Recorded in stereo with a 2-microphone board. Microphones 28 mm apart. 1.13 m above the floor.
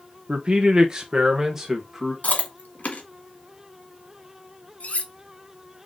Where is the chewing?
75° left (ahead or behind), 1.6 m.